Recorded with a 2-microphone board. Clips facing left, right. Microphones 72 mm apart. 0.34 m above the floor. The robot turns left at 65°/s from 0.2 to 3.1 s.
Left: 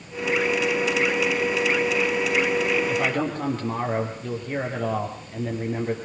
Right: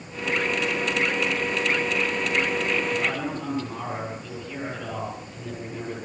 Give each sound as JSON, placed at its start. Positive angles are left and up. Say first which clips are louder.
{"t": 2.9, "sound": "a man speaking", "louder": "left 3 dB", "side_deg": 65, "distance_m": 7.5}